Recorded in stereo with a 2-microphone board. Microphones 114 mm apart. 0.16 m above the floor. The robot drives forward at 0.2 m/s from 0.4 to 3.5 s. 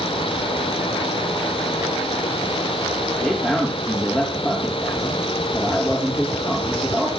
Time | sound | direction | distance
3.2 | a man speaking | 10° left (ahead or behind) | 5 m